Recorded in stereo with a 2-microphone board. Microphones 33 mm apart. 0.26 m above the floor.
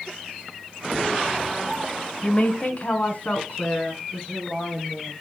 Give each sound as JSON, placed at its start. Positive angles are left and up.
{"t": 2.2, "sound": "a woman speaking", "side_deg": 30, "distance_m": 1.1}